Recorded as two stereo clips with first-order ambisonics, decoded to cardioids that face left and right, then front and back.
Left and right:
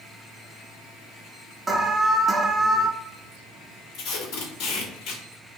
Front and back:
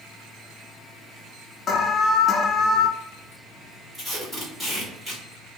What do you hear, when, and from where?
1.7 s an alarm: 20° right, 0.5 m
3.9 s tape being pulled: 100° left, 2.5 m